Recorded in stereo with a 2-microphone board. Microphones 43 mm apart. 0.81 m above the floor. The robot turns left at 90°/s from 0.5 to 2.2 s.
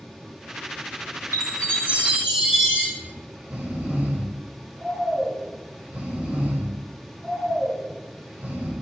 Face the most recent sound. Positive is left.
turn(degrees=-35)  # may be behind; listen again after turning